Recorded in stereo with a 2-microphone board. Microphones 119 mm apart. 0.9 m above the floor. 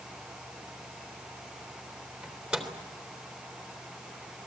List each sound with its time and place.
2.2 s a microwave: 10° right (ahead or behind), 3 m